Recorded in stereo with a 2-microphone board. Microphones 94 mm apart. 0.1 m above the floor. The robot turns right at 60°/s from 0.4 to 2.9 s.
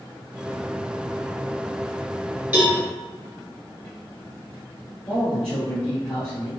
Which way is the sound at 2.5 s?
15° right (ahead or behind).